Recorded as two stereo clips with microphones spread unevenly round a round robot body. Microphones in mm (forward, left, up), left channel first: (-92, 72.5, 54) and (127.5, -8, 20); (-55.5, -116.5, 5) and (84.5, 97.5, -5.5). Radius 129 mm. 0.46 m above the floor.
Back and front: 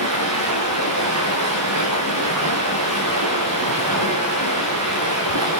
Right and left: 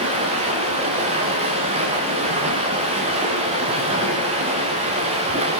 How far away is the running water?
About 7 m.